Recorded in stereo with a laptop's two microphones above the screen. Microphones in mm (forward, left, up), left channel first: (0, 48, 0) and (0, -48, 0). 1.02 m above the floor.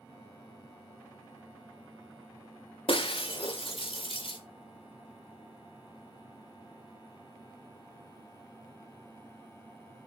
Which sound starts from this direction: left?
Breaking glass, at 2.9 s.